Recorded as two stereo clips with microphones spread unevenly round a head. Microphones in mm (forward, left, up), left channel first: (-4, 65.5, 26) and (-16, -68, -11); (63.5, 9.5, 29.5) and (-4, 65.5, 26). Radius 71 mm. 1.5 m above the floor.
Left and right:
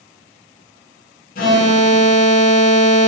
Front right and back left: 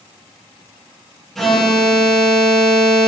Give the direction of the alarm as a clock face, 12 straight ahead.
10 o'clock.